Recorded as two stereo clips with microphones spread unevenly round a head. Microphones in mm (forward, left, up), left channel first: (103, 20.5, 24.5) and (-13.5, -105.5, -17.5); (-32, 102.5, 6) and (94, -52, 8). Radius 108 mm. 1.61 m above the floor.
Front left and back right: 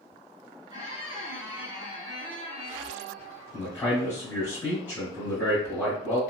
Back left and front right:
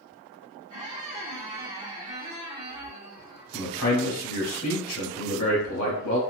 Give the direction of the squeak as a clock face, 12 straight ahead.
2 o'clock.